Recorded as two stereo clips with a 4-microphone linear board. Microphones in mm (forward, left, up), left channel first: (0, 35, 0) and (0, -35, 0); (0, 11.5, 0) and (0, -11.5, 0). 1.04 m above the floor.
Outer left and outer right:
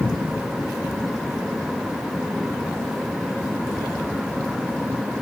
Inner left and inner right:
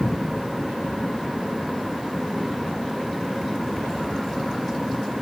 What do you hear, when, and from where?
Only background noise.